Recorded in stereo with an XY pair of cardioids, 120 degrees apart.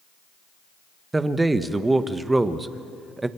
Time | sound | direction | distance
1.1 | a man speaking | 15° right | 1.3 m